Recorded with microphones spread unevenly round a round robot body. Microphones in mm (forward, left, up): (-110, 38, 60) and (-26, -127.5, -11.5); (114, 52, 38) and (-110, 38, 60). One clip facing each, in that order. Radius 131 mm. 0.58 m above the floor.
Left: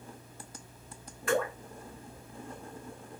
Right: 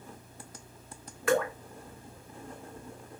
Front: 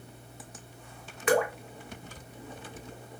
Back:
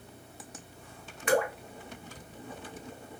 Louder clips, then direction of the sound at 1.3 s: Right 3 dB, front 2 dB; 20° right.